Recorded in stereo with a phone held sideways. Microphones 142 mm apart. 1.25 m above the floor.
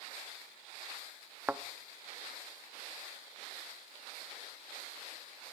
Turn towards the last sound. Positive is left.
turn(degrees=-10)  # may be behind; listen again after turning